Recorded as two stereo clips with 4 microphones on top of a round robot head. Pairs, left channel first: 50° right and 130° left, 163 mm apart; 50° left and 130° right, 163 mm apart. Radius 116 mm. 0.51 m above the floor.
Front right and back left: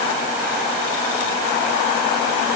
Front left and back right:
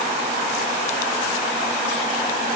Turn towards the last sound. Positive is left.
No sound to turn to.